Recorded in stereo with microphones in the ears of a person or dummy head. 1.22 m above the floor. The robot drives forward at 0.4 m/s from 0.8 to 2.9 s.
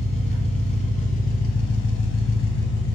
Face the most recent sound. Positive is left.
turn(degrees=55)  # may be behind; listen again after turning